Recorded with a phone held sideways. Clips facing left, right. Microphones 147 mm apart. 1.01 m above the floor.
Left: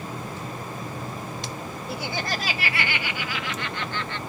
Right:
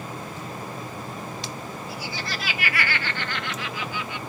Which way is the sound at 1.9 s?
65° left (ahead or behind).